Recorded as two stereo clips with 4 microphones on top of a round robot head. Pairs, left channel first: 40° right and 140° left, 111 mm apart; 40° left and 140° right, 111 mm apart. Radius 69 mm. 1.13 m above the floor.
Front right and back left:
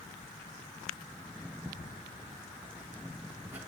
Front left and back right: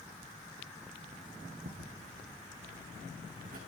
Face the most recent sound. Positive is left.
turn(degrees=-150)